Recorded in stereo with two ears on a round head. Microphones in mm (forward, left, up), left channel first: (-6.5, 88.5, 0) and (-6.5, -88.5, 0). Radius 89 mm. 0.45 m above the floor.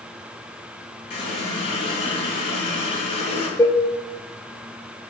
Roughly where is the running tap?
Left.